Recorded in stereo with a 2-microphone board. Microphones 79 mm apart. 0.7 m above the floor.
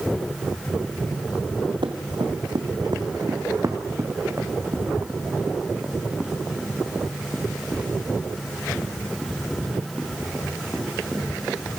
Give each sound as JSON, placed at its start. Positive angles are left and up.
{"t": 1.8, "sound": "running footsteps", "side_deg": -75, "distance_m": 2.5}